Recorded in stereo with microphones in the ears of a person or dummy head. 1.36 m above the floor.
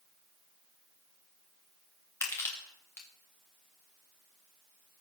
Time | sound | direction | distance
2.2 | crushing | 15° left (ahead or behind) | 1.8 m